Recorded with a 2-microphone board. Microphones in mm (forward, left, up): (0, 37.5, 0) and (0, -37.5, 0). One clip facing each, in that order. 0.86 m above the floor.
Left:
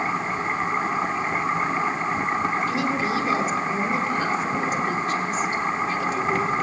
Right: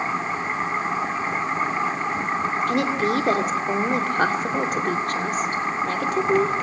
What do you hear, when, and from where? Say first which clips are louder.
2.7 s a woman speaking: right 2 dB; 60° right (ahead or behind), 3 m